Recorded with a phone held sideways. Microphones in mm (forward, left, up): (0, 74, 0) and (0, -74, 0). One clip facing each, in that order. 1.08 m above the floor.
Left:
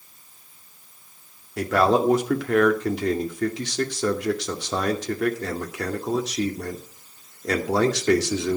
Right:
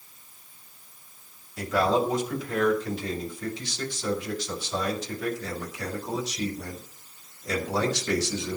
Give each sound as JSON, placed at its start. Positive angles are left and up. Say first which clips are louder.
{"t": 1.6, "sound": "a man speaking", "louder": "left 4 dB", "side_deg": 75, "distance_m": 2.5}